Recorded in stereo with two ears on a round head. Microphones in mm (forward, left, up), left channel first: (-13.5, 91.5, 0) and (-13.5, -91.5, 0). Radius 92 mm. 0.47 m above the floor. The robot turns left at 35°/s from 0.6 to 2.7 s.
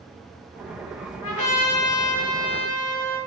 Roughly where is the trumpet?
Left.